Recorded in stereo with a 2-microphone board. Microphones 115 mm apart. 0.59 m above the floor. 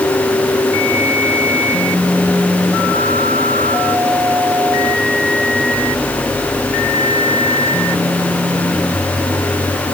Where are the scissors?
I don't hear scissors.